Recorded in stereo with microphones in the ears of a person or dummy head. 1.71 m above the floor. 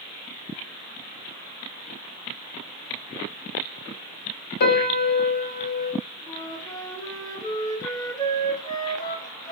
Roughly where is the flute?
Left.